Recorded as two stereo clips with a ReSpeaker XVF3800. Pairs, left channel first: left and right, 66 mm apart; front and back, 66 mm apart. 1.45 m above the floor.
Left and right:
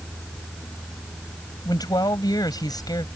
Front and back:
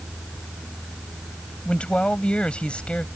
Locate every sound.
1.6 s a man speaking: 75° left